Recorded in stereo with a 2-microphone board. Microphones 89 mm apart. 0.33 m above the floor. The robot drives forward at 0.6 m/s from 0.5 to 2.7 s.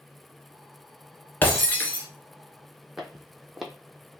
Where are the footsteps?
5° right (ahead or behind), 0.6 m.